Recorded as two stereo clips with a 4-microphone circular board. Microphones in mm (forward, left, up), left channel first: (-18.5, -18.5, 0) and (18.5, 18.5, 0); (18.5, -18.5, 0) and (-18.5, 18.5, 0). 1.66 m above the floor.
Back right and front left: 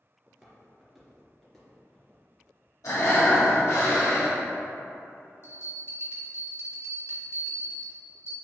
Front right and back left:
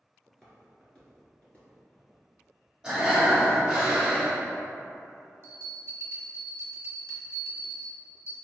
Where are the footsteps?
20° left, 1.6 m; by 2.2 s 70° right, 2 m.